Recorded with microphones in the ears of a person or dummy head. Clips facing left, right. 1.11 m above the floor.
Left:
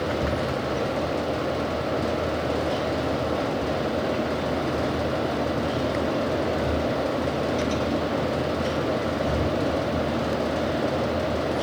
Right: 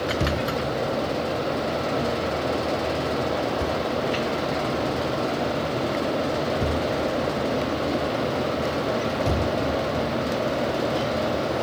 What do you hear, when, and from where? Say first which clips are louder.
0.2 s a thud: right 1 dB; 45° right (ahead or behind), 1.0 m